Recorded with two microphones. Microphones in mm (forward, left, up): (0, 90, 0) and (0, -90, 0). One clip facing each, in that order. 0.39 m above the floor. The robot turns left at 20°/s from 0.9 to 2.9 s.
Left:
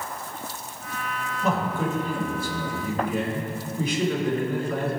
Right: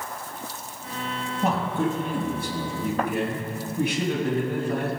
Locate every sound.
1.4 s a man speaking: 60° right (ahead or behind), 2.5 m; by 4.9 s 70° right (ahead or behind), 2.5 m